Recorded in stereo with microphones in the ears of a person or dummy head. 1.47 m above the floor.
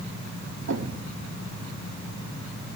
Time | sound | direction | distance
0.7 | a thud | 65° right (ahead or behind) | 1.7 m